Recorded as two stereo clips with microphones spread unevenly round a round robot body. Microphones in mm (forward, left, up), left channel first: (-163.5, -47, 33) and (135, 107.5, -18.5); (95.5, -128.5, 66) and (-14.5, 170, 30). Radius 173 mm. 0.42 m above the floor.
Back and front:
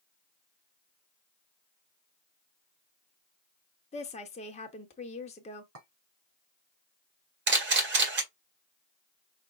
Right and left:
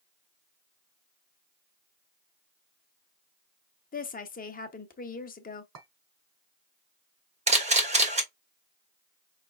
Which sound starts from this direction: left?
A clink, at 5.8 s.